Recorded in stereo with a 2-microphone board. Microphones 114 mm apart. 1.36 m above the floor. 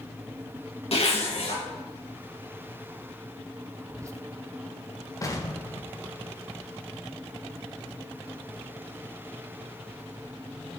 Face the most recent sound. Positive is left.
turn(degrees=30)  # may be behind; listen again after turning